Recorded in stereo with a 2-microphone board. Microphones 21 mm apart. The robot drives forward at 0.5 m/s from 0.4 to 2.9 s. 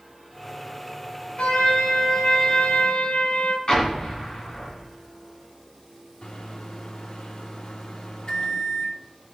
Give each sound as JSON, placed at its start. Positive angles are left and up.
{"t": 1.4, "sound": "a trumpet", "side_deg": 60, "distance_m": 1.7}
{"t": 3.7, "sound": "an explosion", "side_deg": 40, "distance_m": 4.0}
{"t": 6.2, "sound": "a microwave", "side_deg": 50, "distance_m": 1.1}